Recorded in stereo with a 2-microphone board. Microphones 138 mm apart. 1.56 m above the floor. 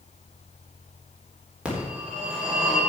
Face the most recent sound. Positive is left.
turn(degrees=-10)  # may be behind; listen again after turning